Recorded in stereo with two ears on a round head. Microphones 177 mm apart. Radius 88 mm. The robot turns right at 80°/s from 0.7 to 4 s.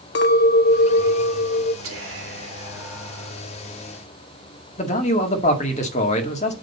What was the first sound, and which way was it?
A clink, 55° left.